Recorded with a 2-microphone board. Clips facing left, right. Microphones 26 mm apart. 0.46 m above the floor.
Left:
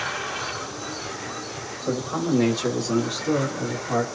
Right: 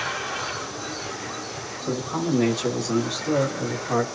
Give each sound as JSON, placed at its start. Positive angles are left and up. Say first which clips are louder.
{"t": 1.9, "sound": "a man speaking", "louder": "left 1 dB", "side_deg": 35, "distance_m": 1.6}